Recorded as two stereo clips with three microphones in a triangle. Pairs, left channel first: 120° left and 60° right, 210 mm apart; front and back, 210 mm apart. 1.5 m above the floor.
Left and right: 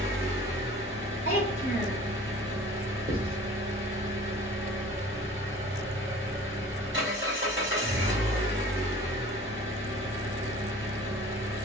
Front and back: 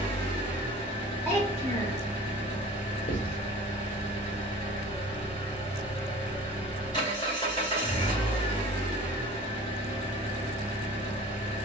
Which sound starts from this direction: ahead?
Writing, at 3.1 s.